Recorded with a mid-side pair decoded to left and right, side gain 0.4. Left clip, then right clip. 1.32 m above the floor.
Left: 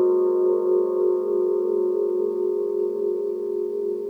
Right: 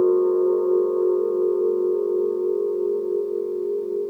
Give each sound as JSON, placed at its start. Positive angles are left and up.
{"t": 0.0, "sound": "a machine running", "azimuth_deg": 10, "distance_m": 1.5}